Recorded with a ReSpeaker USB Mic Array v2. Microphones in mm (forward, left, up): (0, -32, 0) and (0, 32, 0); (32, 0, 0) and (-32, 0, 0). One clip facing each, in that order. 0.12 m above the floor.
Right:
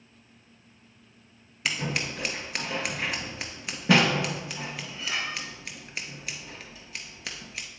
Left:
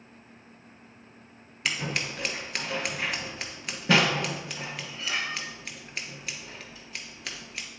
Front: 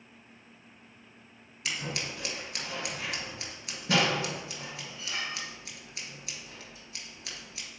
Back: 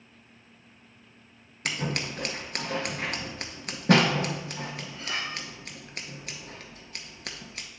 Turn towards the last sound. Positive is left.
turn(degrees=-175)